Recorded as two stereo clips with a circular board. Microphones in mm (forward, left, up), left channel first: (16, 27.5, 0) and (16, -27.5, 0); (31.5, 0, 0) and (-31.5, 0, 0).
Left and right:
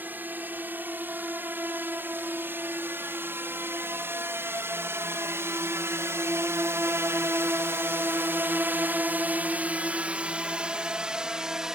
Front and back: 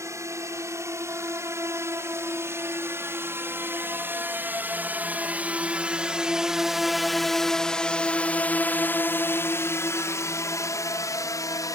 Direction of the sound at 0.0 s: 145° right.